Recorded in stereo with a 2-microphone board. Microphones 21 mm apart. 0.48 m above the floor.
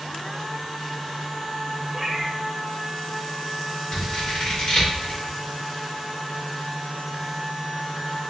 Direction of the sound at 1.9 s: 30° right (ahead or behind).